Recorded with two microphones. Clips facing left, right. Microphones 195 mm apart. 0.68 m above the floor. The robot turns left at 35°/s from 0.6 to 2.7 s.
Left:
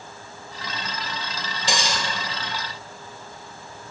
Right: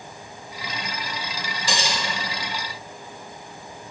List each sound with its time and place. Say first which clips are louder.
1.7 s cutlery clinking: left 1 dB; 25° left (ahead or behind), 1.2 m; by 2.0 s 10° left (ahead or behind), 1.2 m